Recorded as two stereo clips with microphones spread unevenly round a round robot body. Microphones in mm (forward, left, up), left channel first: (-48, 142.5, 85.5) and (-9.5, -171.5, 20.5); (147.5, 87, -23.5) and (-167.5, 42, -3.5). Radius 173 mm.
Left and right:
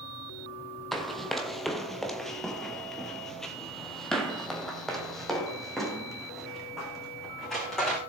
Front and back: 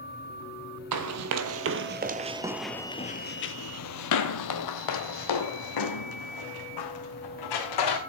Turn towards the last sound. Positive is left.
turn(degrees=10)